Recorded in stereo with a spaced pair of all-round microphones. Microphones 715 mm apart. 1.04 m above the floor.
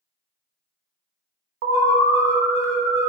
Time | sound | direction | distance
1.6 | an alarm | 55° right (ahead or behind) | 1.0 m